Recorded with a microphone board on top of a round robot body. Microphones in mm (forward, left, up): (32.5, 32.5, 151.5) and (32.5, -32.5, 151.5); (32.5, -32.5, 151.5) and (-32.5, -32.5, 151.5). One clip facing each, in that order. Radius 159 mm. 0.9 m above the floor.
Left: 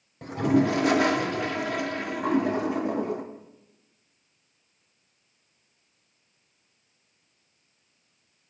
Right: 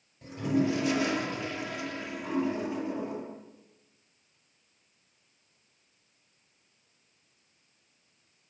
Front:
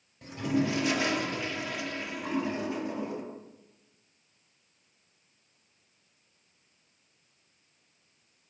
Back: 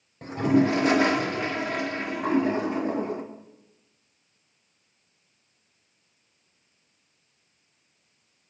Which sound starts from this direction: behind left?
A toilet flushing, at 0.2 s.